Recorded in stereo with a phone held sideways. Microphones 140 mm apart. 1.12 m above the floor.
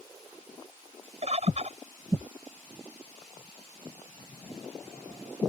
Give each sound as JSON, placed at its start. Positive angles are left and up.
{"t": 1.2, "sound": "a bird", "side_deg": -50}